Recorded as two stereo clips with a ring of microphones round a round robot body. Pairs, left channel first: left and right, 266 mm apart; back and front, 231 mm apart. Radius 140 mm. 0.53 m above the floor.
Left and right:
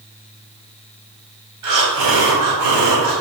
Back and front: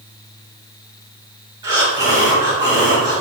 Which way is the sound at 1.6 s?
75° right.